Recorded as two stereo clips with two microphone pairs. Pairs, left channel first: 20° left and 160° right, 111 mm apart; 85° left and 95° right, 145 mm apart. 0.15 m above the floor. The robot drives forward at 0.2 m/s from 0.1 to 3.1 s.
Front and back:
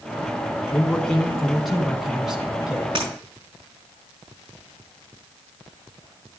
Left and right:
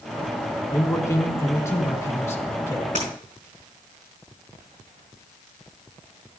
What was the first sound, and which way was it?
A man speaking, 85° left.